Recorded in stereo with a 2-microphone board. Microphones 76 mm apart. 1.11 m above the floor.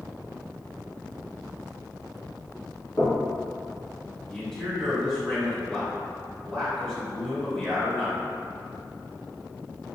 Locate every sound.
3.0 s knocking: 45° left (ahead or behind), 1.5 m
4.3 s a man speaking: 15° left (ahead or behind), 1.9 m